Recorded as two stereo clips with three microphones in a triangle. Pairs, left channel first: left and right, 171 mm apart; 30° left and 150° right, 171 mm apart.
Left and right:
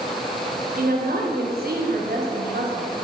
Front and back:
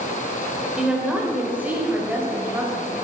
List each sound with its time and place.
0.8 s a woman speaking: 65° right, 3 m; by 3.0 s 75° right, 4 m